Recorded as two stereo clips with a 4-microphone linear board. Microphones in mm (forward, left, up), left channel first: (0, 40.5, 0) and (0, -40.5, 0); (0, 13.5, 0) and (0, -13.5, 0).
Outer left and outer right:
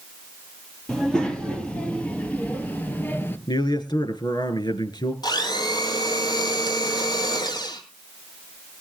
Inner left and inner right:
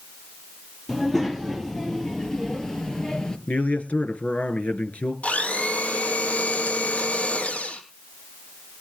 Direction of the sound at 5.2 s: 60° left (ahead or behind).